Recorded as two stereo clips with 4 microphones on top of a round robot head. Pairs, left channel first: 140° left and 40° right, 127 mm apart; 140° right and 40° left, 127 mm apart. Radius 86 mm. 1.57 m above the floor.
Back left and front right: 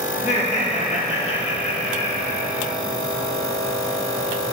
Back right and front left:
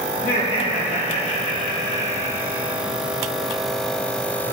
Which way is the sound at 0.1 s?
Straight behind.